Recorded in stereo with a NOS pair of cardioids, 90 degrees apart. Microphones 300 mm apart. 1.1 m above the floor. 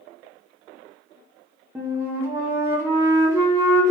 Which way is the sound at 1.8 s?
10° right.